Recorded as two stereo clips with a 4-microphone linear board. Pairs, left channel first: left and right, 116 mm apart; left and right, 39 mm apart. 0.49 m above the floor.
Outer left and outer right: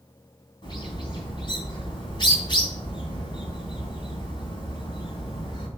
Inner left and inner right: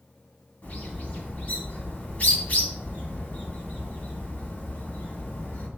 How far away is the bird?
About 3 m.